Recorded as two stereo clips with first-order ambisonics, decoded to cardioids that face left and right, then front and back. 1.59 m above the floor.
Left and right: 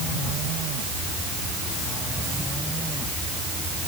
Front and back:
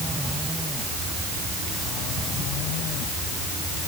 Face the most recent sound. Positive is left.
No sound to turn to.